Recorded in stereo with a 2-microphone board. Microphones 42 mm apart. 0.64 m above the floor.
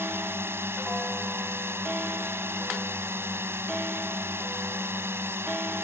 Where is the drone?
75° right (ahead or behind).